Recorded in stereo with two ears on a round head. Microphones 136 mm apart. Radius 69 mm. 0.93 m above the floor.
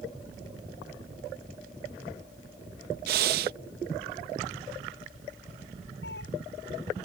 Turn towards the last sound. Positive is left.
turn(degrees=85)